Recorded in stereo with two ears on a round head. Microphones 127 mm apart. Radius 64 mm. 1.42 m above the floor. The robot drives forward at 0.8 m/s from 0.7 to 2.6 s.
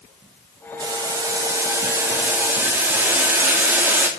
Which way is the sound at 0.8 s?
30° right (ahead or behind).